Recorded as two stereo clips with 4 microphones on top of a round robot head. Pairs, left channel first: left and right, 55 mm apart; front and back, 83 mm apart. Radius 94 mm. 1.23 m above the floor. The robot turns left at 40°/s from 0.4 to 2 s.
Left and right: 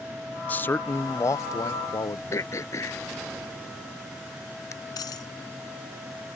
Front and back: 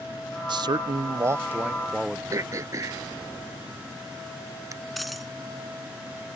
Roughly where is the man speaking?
Behind left.